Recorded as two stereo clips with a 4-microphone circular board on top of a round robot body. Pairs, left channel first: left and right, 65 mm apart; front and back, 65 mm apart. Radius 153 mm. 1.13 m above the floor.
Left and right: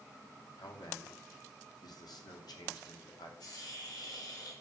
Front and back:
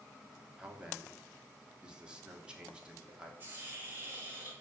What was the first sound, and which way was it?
A man speaking, 105° left.